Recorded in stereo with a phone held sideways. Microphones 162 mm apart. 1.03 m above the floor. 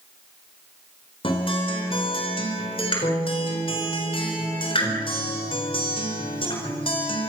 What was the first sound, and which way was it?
A guitar, 35° left (ahead or behind).